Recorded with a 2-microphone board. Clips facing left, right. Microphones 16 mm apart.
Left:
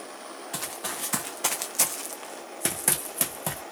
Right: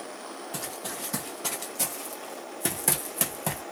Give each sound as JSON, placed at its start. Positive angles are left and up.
{"t": 0.5, "sound": "running footsteps", "side_deg": 65, "distance_m": 1.0}